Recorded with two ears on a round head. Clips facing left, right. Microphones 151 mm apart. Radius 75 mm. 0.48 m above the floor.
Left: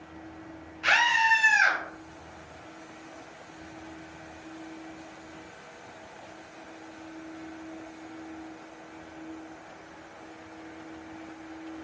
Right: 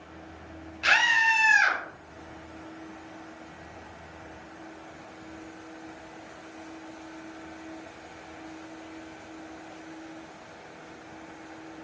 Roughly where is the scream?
Right.